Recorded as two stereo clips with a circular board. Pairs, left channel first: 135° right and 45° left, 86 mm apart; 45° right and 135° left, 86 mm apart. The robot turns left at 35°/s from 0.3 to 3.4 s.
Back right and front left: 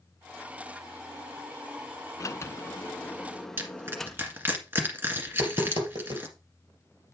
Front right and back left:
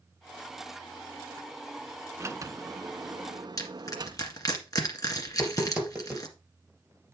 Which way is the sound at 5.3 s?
60° left.